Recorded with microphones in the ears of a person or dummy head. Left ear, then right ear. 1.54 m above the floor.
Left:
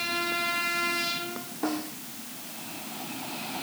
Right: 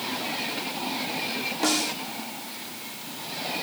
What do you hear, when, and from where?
1.6 s a snare drum: 80° right